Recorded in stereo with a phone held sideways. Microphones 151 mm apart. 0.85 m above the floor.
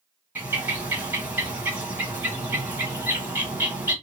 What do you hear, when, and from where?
0.3 s a bird: 10° right (ahead or behind), 1.0 m